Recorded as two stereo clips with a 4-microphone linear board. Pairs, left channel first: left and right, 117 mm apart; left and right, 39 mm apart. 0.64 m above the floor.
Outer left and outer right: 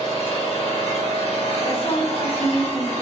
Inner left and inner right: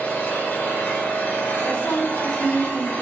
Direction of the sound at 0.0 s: 65° left (ahead or behind).